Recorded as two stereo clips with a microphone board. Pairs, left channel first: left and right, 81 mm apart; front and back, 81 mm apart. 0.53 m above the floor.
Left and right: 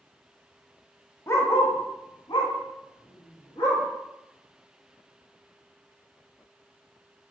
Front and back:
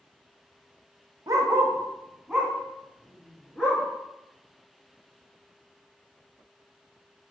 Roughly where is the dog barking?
Behind left.